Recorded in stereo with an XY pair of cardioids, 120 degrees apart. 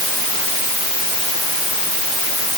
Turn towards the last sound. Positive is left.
No sound to turn to.